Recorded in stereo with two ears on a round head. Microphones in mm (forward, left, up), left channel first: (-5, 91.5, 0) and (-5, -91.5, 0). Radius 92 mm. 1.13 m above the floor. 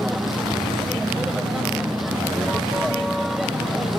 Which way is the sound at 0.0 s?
Centre (ahead or behind).